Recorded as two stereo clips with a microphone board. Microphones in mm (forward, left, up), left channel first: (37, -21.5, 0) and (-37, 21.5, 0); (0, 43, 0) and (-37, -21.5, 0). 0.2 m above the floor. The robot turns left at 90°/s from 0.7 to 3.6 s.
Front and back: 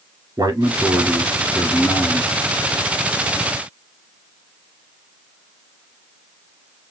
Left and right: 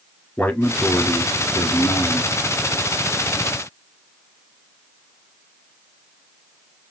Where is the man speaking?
125° left, 3 m; by 2.3 s 20° right, 3 m.